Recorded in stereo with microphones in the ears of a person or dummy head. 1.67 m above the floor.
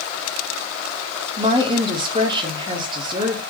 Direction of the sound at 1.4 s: 30° right (ahead or behind).